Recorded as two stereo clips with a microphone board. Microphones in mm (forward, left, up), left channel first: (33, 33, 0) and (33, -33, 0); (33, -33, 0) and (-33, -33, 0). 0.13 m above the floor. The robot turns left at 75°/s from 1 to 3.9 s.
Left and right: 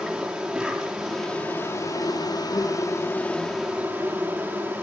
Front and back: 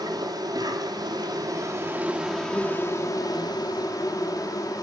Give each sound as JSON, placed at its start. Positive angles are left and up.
{"t": 0.0, "sound": "an insect", "azimuth_deg": -175, "distance_m": 5.5}